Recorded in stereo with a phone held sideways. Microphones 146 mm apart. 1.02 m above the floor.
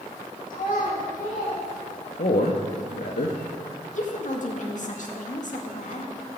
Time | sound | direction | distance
0.5 | a child speaking | 70° left (ahead or behind) | 5.5 m
2.2 | a man speaking | 75° left (ahead or behind) | 1.0 m
4.0 | a woman speaking | 60° left (ahead or behind) | 1.8 m